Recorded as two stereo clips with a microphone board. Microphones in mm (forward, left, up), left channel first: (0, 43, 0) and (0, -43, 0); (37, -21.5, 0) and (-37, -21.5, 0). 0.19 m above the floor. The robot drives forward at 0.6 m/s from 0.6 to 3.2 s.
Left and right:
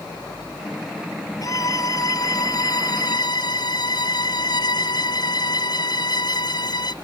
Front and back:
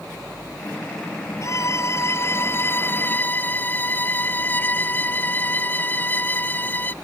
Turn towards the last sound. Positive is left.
turn(degrees=65)